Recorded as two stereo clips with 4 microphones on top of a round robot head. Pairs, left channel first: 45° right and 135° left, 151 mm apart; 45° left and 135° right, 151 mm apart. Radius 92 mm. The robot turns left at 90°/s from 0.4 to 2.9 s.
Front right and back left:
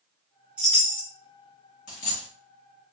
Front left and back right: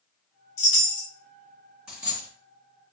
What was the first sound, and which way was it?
A chime, 55° left.